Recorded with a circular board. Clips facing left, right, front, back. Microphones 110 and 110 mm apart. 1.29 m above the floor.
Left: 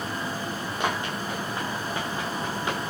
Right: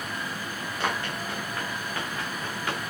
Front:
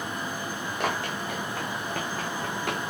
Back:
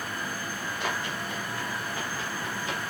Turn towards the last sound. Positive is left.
turn(degrees=20)